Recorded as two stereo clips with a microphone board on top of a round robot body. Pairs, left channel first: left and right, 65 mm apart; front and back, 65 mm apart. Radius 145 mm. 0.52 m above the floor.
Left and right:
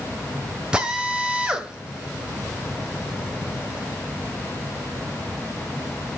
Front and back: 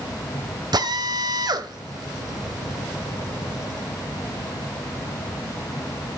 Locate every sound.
0.7 s a drill: 165° right, 1.6 m